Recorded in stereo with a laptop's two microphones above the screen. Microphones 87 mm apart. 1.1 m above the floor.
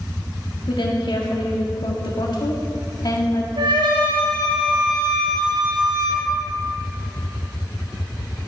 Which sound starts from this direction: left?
A woman speaking, at 0.7 s.